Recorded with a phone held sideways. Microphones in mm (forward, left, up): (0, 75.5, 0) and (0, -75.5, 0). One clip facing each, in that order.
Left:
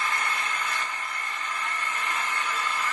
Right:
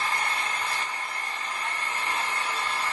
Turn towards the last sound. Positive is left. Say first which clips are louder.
# right 1 dB
turn(degrees=-30)  # may be behind; listen again after turning